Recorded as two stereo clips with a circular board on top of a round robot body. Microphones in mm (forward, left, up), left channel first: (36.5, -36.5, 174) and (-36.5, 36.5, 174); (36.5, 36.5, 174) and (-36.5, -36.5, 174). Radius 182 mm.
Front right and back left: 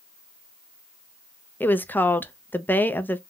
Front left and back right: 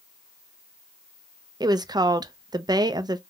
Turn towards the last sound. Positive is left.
turn(degrees=-110)